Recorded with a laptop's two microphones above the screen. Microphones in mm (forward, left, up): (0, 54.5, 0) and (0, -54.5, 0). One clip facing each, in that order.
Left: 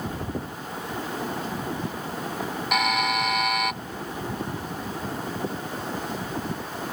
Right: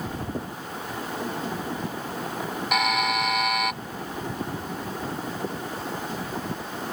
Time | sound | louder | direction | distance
2.7 | a buzzer | even | centre (ahead or behind) | ?